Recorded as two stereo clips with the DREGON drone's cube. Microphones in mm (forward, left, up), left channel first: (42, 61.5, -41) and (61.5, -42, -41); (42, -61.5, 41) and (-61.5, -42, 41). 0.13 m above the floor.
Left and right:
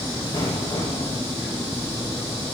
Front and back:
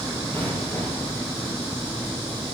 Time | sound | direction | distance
0.3 | an explosion | 55° left | 3 m